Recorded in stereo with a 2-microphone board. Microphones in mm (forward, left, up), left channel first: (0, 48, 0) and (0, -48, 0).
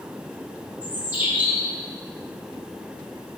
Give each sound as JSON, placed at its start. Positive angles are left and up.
{"t": 0.8, "sound": "a bird", "side_deg": -20, "distance_m": 2.5}